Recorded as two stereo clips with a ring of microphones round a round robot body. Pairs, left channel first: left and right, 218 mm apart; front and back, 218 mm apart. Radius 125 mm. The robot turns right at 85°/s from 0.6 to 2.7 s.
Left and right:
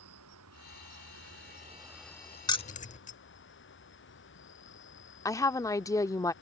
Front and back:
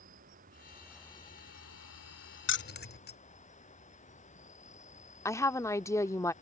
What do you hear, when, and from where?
0.0 s an insect: 120° right; by 6.4 s 55° left
2.5 s keys jangling: 20° left; by 3.2 s 35° left
5.2 s a woman speaking: 50° left